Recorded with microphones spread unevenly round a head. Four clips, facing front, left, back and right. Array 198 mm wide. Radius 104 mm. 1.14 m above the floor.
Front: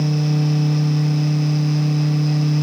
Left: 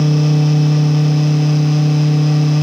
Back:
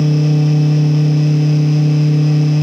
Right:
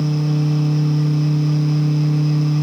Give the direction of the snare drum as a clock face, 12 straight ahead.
I don't hear a snare drum.